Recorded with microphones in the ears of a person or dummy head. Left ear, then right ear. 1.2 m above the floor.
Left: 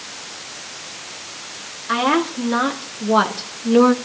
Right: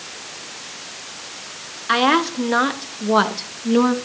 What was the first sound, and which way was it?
A woman speaking, 25° right (ahead or behind).